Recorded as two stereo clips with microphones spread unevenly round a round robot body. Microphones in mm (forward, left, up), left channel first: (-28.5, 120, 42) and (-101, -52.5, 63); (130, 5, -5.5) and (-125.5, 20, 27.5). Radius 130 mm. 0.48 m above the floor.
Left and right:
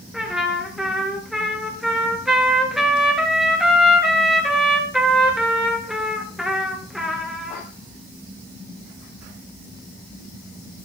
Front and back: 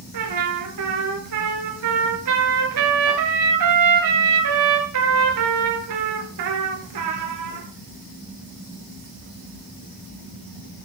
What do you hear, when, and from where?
0.1 s a trumpet: 160° left, 2.5 m